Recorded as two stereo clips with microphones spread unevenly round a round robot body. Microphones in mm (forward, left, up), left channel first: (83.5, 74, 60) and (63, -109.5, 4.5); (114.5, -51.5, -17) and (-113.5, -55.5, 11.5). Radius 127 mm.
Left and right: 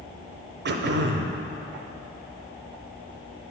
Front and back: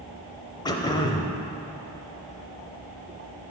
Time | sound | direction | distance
0.7 | throat clearing | 70° right | 0.6 m